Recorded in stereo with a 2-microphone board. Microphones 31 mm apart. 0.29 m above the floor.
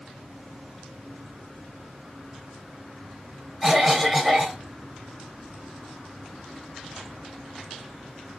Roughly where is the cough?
Centre.